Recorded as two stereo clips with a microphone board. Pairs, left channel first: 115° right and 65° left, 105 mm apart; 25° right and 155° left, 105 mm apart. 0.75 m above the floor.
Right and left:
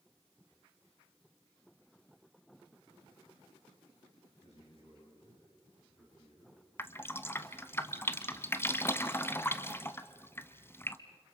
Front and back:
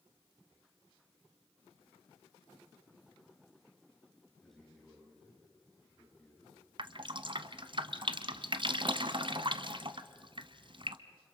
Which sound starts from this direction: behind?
Dripping, at 6.8 s.